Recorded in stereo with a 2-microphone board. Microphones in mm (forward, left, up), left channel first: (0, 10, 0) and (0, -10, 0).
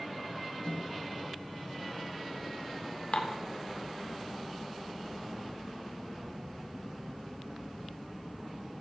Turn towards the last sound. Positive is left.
turn(degrees=65)  # may be behind; listen again after turning